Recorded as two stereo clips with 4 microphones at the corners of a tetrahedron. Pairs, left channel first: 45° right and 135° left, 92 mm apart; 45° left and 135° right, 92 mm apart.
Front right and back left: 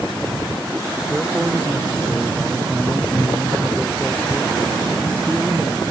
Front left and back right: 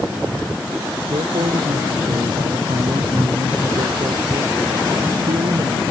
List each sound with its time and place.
1.1 s a man speaking: 145° right